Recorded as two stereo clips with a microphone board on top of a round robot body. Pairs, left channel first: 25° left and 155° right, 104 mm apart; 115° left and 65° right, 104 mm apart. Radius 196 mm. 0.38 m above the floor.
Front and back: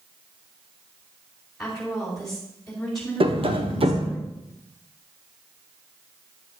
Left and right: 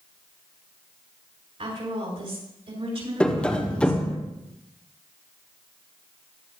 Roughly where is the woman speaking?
Ahead right.